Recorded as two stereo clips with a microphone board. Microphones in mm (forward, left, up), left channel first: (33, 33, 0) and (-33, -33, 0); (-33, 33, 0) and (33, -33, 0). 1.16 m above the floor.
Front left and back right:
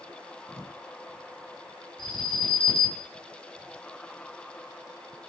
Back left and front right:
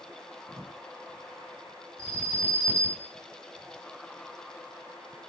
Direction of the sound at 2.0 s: 15° left.